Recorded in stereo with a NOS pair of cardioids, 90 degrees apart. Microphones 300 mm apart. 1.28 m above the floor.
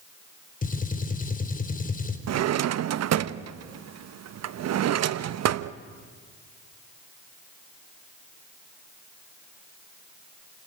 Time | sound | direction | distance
0.6 | a gunshot | 30° left | 3.5 m
2.3 | a drawer | 65° right | 1.0 m